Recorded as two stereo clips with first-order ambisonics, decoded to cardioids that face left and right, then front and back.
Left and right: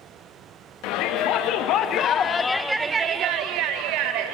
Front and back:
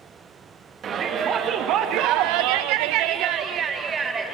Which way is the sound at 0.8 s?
120° left.